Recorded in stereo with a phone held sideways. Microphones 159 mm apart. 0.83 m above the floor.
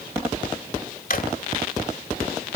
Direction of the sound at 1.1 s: 60° left (ahead or behind).